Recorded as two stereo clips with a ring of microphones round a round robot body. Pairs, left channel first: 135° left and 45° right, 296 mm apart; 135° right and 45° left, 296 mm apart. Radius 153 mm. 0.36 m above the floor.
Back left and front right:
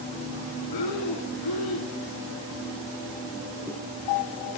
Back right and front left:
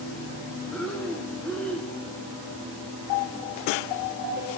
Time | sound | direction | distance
0.7 | breathing | 140° left | 0.9 m